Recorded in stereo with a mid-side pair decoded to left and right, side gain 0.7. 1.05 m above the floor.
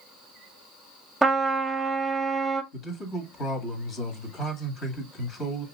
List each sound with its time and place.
1.2 s a trumpet: 10° right, 1.2 m
2.7 s a man speaking: 35° left, 1.8 m